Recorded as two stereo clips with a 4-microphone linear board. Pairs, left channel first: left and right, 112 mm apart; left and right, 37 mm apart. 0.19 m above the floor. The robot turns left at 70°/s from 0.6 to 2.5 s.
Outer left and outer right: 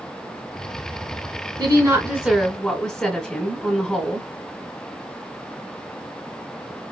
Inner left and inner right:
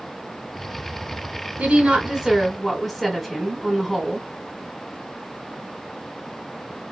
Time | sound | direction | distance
1.6 | a woman speaking | 130° right | 1.8 m